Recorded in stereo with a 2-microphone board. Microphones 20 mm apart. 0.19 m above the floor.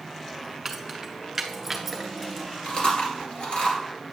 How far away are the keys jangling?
About 1.1 m.